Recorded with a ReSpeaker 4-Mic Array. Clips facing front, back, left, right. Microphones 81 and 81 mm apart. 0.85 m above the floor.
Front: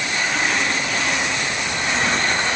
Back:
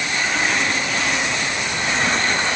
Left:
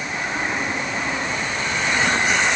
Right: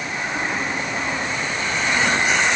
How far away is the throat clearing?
No throat clearing in this recording.